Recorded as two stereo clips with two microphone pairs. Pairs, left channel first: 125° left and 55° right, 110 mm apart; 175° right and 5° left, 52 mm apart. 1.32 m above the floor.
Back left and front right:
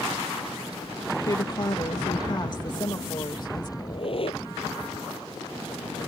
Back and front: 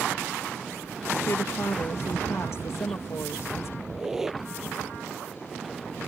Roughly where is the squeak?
Left.